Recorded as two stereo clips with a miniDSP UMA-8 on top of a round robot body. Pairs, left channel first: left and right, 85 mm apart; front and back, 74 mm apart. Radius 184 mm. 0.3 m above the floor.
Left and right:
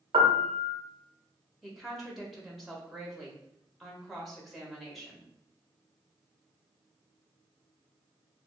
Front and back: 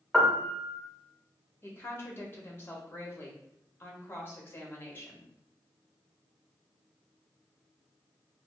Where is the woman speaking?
Straight ahead, 1.2 m.